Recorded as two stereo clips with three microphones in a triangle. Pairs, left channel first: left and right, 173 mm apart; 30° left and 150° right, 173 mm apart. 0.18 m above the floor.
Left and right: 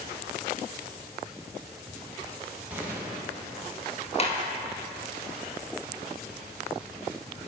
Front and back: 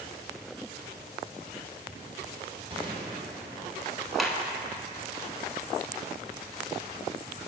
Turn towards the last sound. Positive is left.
turn(degrees=120)